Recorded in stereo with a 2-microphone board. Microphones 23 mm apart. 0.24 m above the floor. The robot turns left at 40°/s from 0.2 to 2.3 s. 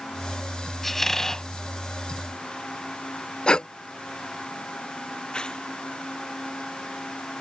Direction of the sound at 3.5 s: 40° left (ahead or behind).